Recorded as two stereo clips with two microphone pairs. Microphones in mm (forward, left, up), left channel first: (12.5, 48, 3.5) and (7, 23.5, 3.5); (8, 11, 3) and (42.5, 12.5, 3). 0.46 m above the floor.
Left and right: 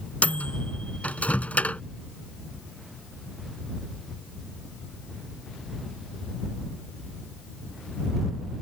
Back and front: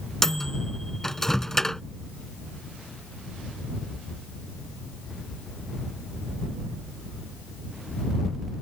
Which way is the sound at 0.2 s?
105° left.